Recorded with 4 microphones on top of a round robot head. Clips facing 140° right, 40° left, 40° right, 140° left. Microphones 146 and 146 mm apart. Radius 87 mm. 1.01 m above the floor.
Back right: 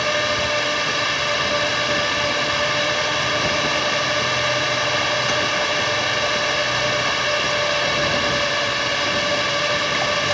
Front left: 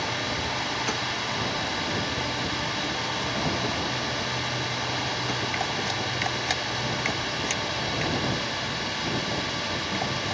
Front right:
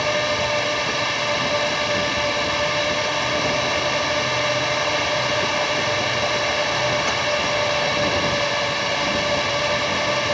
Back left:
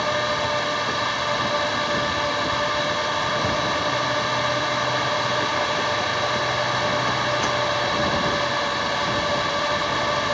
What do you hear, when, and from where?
0.0 s a drone: 115° right